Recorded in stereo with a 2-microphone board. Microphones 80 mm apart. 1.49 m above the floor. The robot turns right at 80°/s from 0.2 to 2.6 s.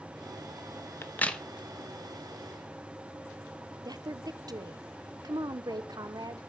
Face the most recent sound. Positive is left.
turn(degrees=-55)  # may be behind; listen again after turning